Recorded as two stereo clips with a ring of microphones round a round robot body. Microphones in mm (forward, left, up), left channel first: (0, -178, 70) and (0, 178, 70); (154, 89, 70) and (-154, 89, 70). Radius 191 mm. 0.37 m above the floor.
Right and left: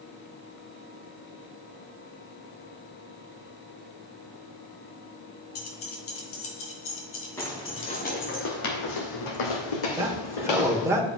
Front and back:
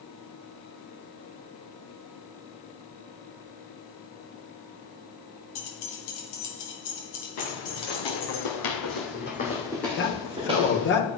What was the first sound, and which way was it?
Keys jangling, 40° right.